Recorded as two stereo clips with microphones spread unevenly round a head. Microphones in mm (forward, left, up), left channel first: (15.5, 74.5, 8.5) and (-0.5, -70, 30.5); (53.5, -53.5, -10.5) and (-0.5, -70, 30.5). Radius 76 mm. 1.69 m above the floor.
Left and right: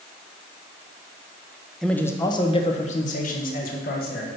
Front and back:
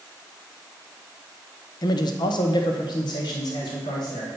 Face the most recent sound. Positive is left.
turn(degrees=60)